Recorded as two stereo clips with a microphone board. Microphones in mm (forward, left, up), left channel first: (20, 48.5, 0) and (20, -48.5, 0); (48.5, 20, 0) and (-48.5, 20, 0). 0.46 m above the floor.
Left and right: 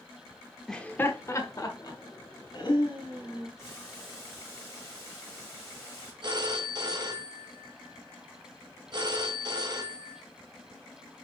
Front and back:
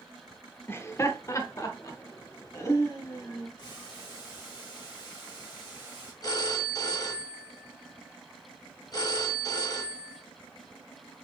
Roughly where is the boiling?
Ahead left.